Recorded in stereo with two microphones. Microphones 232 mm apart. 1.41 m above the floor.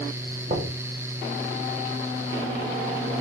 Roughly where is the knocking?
Right.